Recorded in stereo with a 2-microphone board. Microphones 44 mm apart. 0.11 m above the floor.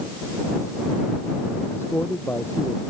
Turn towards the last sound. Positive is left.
turn(degrees=85)